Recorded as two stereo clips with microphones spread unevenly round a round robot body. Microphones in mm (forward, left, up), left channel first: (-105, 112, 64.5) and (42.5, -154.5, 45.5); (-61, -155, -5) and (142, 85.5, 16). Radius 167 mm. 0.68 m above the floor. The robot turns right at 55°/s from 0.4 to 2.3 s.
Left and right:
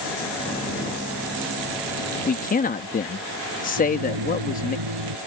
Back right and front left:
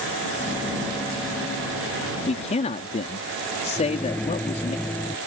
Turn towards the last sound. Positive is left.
turn(degrees=-45)